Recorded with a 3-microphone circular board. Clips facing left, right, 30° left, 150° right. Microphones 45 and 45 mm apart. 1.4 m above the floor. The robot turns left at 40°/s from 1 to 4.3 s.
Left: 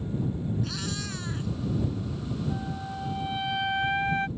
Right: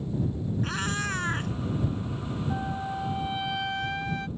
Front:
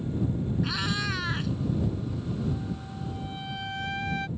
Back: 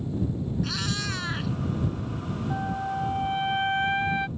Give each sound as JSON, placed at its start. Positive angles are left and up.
{"t": 0.6, "sound": "a cat meowing", "azimuth_deg": -45}
{"t": 2.5, "sound": "a flute", "azimuth_deg": -150}